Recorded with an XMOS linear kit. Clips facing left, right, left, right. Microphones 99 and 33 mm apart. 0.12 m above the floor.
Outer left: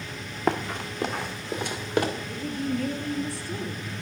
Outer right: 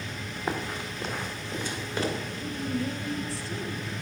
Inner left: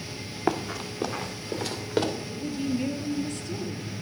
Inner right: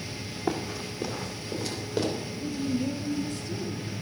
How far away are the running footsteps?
About 1.5 m.